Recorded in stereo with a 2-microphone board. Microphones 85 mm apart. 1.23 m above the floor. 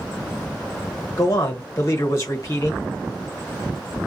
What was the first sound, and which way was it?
A man speaking, 35° left (ahead or behind).